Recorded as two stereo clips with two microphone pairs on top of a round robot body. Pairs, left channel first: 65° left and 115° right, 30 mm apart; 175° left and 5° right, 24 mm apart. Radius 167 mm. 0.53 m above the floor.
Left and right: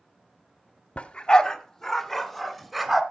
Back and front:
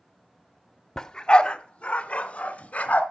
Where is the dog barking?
110° left, 0.8 m; by 3.0 s 155° left, 1.8 m.